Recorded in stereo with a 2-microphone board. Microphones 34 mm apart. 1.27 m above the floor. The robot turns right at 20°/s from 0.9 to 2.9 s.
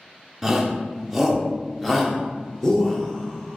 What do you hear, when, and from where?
0.4 s a shout: 10° right (ahead or behind), 0.6 m; by 3.6 s 20° left (ahead or behind), 0.6 m